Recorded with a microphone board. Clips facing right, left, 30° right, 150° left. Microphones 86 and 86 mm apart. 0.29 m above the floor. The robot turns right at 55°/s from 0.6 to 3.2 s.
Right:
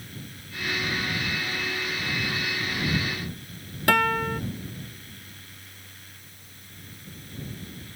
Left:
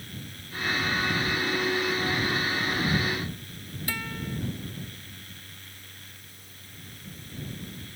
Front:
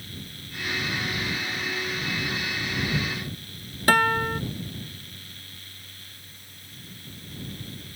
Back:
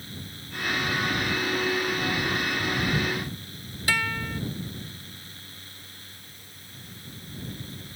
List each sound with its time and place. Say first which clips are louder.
3.9 s a guitar: right 13 dB, front 8 dB; 70° right